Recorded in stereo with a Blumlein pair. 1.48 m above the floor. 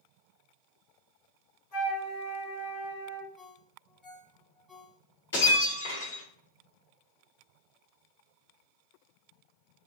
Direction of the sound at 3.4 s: 20° left.